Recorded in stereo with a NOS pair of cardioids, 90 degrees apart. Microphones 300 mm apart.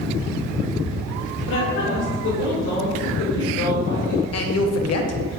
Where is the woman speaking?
50° left, 1.5 m.